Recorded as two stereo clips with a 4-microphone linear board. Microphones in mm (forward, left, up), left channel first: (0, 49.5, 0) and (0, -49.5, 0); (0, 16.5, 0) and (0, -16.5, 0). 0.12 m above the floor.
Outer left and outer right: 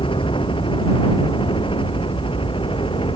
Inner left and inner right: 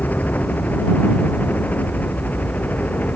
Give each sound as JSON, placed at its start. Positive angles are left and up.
{"t": 0.0, "sound": "a helicopter", "side_deg": 60}